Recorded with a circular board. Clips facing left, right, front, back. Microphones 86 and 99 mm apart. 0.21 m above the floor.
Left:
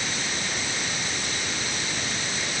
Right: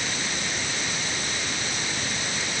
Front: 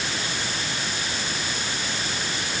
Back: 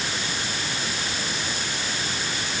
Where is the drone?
I don't hear a drone.